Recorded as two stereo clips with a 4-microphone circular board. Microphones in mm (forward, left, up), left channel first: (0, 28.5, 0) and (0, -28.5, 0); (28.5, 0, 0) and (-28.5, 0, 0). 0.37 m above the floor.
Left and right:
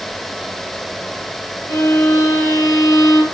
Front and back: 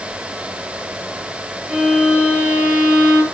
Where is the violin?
110° left, 8 m.